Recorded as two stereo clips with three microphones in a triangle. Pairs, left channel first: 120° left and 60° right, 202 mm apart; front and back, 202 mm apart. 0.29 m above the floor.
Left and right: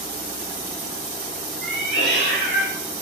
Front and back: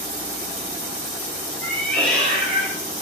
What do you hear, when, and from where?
1.6 s a cat meowing: 90° left, 3 m